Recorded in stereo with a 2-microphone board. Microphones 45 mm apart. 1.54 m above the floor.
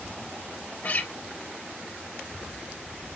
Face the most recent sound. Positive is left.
turn(degrees=40)  # may be behind; listen again after turning